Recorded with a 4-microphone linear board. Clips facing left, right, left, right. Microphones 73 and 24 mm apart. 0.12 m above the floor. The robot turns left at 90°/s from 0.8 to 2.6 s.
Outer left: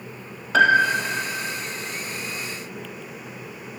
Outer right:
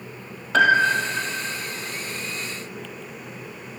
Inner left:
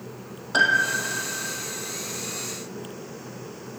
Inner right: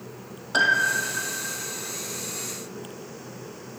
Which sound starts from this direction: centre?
A piano, at 0.5 s.